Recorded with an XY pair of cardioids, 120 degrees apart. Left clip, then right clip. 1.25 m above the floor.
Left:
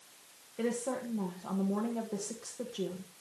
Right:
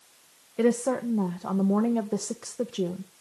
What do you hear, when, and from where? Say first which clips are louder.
0.6 s a woman speaking: right 10 dB; 55° right, 1.5 m